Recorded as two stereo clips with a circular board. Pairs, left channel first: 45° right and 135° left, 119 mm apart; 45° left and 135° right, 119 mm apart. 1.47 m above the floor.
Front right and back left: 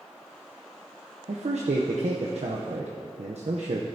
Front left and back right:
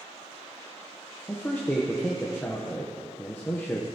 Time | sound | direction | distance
1.3 | a man speaking | 120° left | 0.7 m